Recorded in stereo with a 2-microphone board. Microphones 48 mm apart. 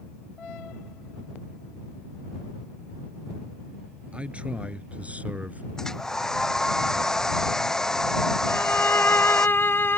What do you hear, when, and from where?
4.1 s a man speaking: 25° right (ahead or behind); by 5.6 s 35° right (ahead or behind)
5.8 s a hair dryer: 10° left (ahead or behind)
8.5 s a violin: 55° left (ahead or behind)